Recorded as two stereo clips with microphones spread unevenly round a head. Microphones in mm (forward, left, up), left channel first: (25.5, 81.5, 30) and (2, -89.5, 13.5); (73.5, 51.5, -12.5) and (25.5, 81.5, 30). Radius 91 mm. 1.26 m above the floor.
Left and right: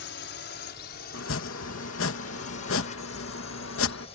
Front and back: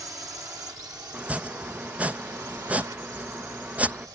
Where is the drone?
105° left; by 4.2 s 140° left.